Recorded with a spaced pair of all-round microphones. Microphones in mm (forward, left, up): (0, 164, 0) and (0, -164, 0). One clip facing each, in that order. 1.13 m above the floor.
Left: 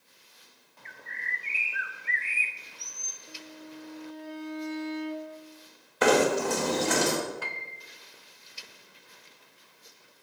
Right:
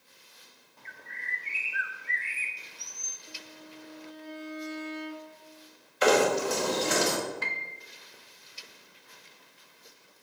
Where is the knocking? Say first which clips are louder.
Left 1 dB; 60° left (ahead or behind), 1.7 m.